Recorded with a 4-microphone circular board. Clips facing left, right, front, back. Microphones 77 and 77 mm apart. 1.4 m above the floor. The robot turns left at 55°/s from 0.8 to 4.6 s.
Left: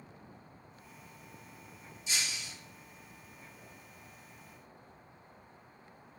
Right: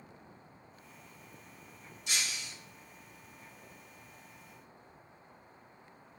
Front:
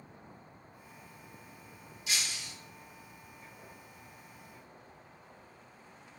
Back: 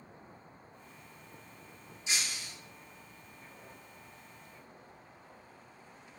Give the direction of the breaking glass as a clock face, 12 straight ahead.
4 o'clock.